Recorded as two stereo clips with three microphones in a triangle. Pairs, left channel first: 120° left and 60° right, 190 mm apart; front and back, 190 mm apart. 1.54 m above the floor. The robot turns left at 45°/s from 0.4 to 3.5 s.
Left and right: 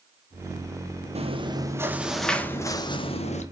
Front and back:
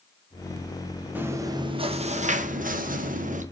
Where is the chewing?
105° right, 0.9 m; by 3.4 s 155° left, 0.9 m.